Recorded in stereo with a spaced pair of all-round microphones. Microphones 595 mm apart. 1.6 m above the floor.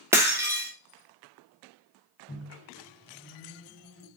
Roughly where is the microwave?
Centre.